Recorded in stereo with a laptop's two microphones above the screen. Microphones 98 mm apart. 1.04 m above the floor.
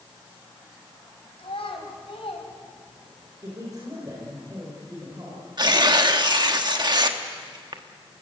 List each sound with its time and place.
1.4 s a child speaking: 85° left, 3 m; by 3.3 s 65° left (ahead or behind), 3 m
3.4 s a man speaking: 40° right (ahead or behind), 5 m
5.6 s tearing paper: 45° right (ahead or behind), 1.2 m